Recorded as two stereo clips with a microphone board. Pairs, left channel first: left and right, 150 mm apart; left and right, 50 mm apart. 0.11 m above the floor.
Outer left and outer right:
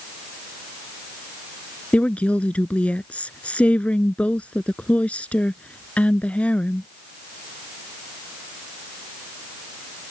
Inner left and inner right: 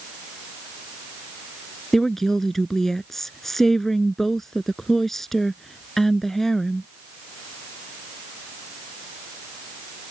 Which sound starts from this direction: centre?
A woman speaking, at 1.9 s.